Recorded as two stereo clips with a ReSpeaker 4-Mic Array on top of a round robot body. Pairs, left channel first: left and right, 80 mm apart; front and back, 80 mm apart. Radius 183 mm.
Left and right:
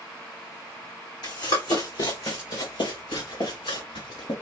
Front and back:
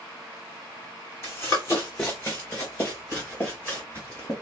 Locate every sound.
1.2 s running footsteps: 60° left, 2 m; by 4.3 s 70° left, 5.5 m